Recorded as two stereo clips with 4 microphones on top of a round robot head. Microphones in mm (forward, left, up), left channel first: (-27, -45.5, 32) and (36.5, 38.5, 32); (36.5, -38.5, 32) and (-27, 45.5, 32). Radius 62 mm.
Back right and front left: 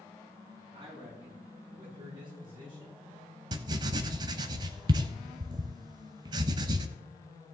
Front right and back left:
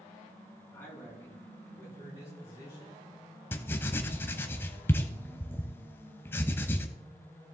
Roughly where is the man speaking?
Ahead.